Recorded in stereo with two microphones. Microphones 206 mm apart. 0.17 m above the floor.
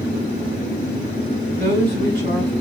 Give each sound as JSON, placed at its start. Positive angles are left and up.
{"t": 1.6, "sound": "a woman speaking", "side_deg": -55, "distance_m": 1.8}